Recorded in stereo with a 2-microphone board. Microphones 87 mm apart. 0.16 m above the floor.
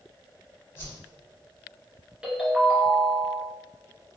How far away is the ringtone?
About 1.0 m.